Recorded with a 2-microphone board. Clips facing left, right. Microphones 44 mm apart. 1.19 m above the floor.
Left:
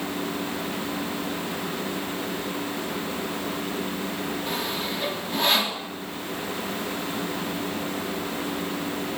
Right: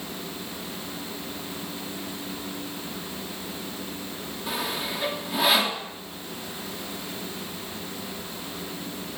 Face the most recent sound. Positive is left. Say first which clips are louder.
# left 2 dB
turn(degrees=-5)  # may be behind; listen again after turning